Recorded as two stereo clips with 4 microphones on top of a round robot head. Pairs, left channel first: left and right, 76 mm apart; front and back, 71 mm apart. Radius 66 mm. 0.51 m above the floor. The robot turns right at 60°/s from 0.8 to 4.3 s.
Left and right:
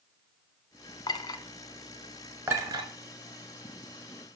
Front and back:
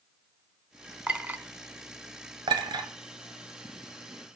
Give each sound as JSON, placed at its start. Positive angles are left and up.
{"t": 1.1, "sound": "a clink", "azimuth_deg": 110, "distance_m": 1.1}
{"t": 2.5, "sound": "a clink", "azimuth_deg": -155, "distance_m": 1.5}